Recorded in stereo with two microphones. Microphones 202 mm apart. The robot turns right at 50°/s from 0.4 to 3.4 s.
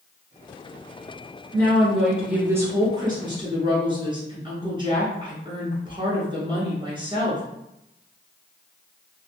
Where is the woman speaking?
10° left (ahead or behind), 1.2 m; by 7.4 s 25° right (ahead or behind), 1.2 m.